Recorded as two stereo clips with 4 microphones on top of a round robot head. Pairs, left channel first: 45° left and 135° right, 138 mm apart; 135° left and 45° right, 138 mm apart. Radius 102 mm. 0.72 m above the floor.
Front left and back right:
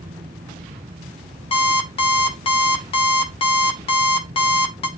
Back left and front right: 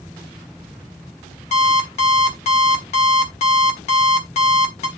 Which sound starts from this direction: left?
An alarm clock, at 1.5 s.